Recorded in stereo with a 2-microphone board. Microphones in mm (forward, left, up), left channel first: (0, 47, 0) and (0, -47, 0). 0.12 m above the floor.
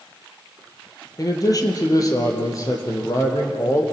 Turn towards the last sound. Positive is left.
turn(degrees=35)  # may be behind; listen again after turning